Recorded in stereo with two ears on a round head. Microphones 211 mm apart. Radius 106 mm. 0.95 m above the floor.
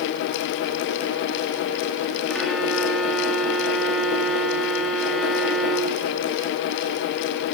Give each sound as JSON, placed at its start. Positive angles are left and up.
{"t": 2.3, "sound": "a violin", "side_deg": 0, "distance_m": 1.6}